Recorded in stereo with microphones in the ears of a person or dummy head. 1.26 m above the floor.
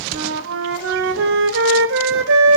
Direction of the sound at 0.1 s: 65° right (ahead or behind).